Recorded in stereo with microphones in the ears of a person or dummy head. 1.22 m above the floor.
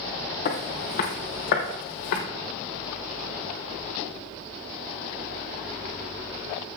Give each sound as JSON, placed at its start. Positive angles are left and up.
{"t": 0.5, "sound": "footsteps", "side_deg": 45, "distance_m": 2.0}